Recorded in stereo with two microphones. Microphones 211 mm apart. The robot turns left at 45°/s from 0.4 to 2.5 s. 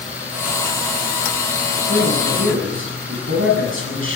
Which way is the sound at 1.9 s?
50° right (ahead or behind).